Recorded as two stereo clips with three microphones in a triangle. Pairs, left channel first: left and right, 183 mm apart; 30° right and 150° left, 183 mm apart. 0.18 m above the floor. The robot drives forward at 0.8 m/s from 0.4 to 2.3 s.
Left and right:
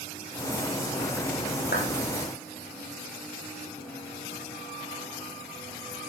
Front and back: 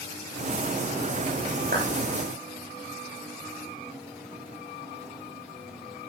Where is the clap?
115° left, 9 m.